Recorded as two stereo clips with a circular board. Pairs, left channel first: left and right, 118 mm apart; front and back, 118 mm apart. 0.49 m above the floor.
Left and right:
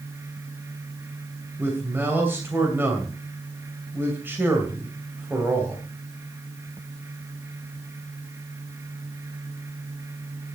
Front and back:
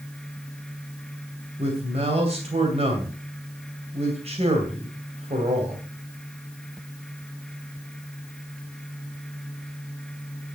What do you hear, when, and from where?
1.6 s a man speaking: 160° right, 2.5 m